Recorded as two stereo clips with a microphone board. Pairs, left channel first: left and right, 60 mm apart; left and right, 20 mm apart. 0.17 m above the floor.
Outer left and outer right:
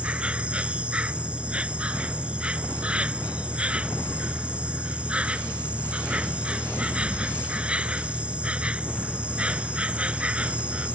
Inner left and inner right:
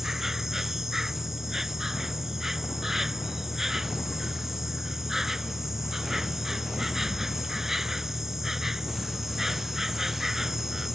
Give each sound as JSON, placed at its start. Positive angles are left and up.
{"t": 0.0, "sound": "an insect", "side_deg": -20}